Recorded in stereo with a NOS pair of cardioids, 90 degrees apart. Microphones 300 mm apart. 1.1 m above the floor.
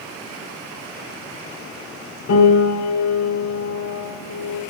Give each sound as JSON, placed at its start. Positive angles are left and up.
{"t": 2.3, "sound": "a piano", "azimuth_deg": 60, "distance_m": 3.5}